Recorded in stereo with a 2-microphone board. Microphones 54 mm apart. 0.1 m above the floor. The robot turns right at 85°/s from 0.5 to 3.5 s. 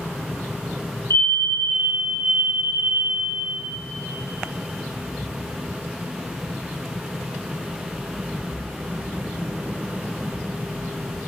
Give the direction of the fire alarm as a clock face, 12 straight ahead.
8 o'clock.